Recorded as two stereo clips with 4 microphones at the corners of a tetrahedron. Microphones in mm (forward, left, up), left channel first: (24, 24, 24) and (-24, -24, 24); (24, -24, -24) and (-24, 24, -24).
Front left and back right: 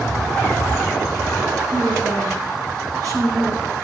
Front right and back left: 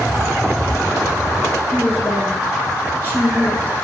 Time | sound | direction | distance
1.7 | a woman speaking | 105° right | 2.5 m